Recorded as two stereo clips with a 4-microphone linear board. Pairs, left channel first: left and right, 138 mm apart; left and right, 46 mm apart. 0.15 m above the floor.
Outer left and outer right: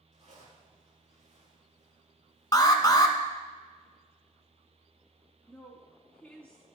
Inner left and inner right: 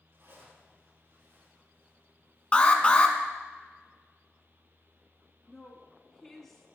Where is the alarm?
30° left (ahead or behind), 0.9 m.